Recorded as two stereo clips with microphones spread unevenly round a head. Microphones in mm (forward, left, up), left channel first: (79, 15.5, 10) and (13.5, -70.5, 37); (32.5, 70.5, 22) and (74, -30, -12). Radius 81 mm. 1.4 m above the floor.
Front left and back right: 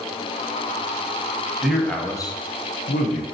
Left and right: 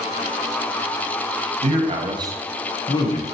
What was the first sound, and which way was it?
A man speaking, 40° right.